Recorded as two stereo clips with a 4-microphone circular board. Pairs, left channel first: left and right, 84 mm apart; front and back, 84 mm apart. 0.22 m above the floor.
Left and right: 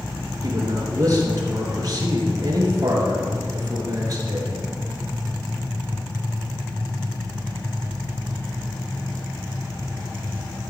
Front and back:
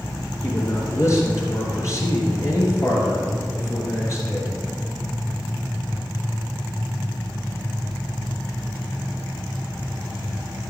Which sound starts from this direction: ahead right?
A man speaking, at 0.4 s.